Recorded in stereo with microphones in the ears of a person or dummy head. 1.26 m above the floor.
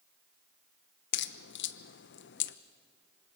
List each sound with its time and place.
1.1 s a crack: 60° left (ahead or behind), 0.9 m